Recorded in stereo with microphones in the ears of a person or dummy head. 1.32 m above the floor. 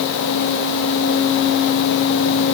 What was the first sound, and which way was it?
Only background noise.